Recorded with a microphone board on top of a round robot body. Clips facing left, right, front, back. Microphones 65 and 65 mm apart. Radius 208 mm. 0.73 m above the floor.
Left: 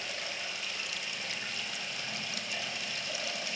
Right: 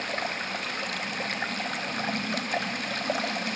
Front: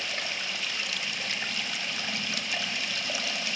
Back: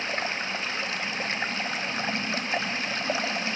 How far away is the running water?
About 1.3 m.